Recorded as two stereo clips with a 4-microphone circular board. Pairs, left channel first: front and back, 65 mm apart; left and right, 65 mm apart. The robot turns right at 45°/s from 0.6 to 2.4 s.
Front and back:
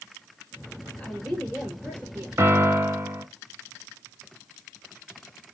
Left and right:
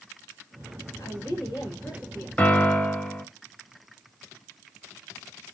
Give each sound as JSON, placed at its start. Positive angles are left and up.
{"t": 1.0, "sound": "a woman speaking", "azimuth_deg": 70, "distance_m": 4.0}
{"t": 2.4, "sound": "a piano", "azimuth_deg": 145, "distance_m": 1.1}